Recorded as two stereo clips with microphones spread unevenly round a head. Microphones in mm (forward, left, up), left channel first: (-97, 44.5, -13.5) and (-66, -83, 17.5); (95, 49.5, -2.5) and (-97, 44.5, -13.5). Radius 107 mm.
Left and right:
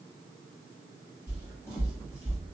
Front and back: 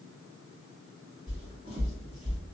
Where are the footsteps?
145° right, 1.9 m; by 2.4 s 115° right, 1.9 m.